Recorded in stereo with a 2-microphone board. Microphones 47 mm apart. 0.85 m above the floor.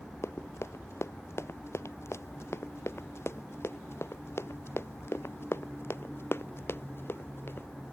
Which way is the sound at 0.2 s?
75° left (ahead or behind).